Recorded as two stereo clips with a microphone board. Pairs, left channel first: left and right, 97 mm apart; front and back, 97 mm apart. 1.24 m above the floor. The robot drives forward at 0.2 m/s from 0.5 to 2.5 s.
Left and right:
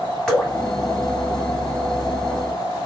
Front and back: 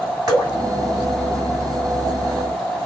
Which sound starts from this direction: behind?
Dripping, at 0.3 s.